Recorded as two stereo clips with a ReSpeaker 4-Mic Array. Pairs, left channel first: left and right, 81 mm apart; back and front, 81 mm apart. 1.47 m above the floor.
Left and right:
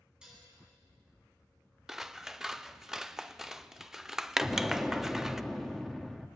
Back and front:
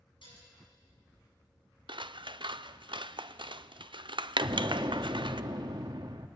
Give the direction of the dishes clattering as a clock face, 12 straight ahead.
6 o'clock.